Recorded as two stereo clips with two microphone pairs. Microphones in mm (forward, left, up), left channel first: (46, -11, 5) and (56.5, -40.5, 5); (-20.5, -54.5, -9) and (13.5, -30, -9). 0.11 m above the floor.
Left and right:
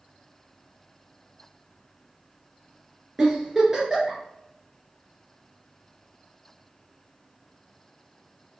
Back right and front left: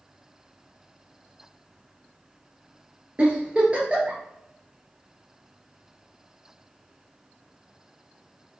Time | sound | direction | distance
3.2 | a giggle | 5° right | 1.8 m